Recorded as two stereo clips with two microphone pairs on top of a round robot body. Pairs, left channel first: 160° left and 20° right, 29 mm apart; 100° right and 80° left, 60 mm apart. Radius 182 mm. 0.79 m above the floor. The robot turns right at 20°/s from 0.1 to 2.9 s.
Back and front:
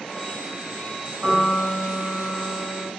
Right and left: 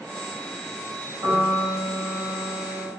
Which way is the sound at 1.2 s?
70° left.